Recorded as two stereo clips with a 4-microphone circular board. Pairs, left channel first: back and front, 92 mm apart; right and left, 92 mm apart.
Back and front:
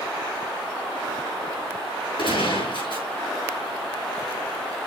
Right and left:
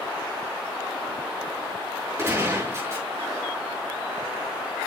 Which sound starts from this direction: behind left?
A gunshot, at 2.2 s.